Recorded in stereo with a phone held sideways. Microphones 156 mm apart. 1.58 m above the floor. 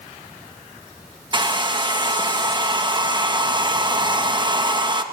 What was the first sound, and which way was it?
A hair dryer, 30° right (ahead or behind).